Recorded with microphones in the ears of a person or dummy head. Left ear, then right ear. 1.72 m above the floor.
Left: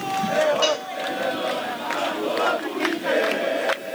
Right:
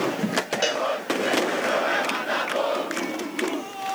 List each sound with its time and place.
0.6 s a cowbell: 5° left (ahead or behind), 4 m